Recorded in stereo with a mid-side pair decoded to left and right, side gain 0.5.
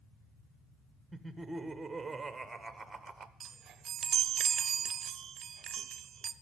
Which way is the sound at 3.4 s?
55° right.